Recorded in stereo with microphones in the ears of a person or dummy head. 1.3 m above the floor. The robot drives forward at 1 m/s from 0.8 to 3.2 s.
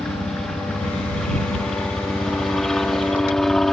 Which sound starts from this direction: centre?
A helicopter, at 0.0 s.